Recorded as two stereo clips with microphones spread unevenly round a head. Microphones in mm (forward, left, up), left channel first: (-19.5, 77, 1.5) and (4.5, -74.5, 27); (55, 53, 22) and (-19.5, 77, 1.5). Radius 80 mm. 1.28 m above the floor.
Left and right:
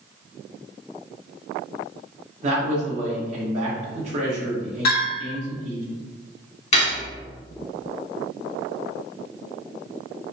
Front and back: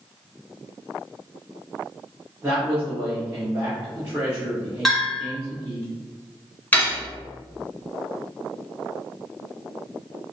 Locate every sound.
2.4 s a man speaking: 130° right, 1.8 m
4.8 s a bell: 70° left, 1.8 m
6.7 s cutlery clinking: 45° left, 1.5 m